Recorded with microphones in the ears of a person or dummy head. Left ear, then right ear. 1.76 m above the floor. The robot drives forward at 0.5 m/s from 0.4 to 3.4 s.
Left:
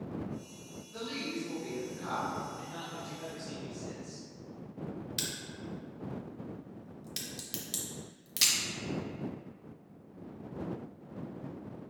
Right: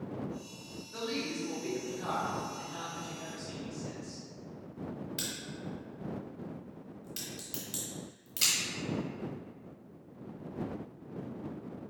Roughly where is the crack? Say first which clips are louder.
Left 2 dB; left.